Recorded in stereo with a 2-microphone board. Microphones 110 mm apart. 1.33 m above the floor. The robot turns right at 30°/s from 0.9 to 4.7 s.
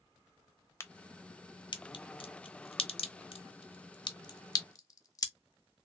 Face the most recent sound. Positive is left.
turn(degrees=30)  # may be behind; listen again after turning